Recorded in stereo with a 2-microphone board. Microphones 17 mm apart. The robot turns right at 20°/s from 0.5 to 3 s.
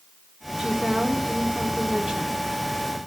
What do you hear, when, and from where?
0.6 s a woman speaking: 115° right, 3 m; by 2.4 s 75° right, 3 m